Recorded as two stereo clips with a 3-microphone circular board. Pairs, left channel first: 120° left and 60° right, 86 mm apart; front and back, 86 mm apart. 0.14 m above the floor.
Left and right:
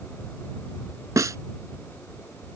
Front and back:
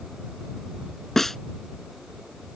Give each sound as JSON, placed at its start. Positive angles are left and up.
{"t": 1.2, "sound": "a snare drum", "azimuth_deg": -85}